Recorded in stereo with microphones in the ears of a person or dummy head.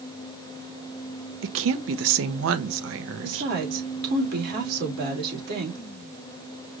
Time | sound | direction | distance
1.4 | a woman speaking | 70° right (ahead or behind) | 0.8 m
3.2 | a woman speaking | 55° right (ahead or behind) | 2.5 m